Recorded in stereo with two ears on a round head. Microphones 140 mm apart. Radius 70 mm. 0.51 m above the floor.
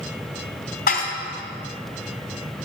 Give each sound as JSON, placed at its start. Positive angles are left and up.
{"t": 0.9, "sound": "dishes clattering", "side_deg": 60, "distance_m": 2.5}